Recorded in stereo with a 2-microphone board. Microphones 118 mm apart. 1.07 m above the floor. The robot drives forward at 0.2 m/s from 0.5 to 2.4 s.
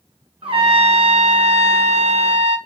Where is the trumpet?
50° right (ahead or behind), 0.6 m; by 2.6 s 65° right (ahead or behind), 0.5 m.